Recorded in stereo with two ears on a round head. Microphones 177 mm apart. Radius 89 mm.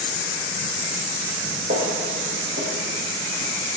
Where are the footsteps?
45° right (ahead or behind), 2.5 m; by 3.5 s 50° right (ahead or behind), 4.5 m.